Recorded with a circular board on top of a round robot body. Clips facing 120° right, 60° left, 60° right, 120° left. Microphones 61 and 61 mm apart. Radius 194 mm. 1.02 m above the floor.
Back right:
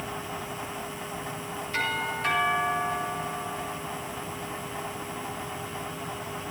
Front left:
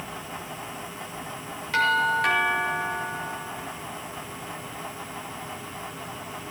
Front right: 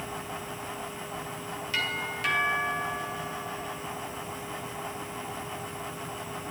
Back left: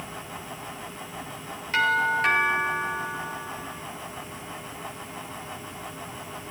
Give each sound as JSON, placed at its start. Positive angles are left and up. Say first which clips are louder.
{"t": 1.7, "sound": "a doorbell", "louder": "front left 8 dB, back left 11 dB", "azimuth_deg": 70, "distance_m": 6.0}